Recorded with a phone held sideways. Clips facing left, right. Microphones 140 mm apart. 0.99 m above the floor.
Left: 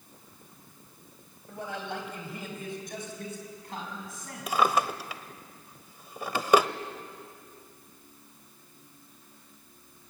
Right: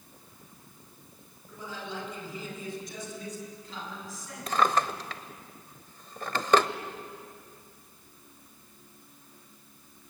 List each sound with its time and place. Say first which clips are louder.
1.5 s a man speaking: left 3 dB; 65° left (ahead or behind), 5 m; by 4.5 s 55° left (ahead or behind), 8 m
4.5 s a drawer: even; 10° left (ahead or behind), 0.9 m